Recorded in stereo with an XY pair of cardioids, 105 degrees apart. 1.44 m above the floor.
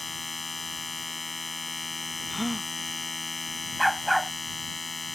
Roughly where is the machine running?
Ahead.